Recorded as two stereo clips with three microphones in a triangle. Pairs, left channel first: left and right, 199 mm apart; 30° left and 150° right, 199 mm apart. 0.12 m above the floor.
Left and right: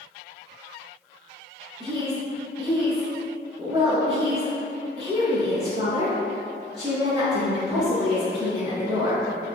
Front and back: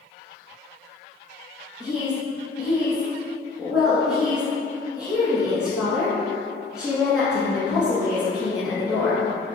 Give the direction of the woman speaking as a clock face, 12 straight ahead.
2 o'clock.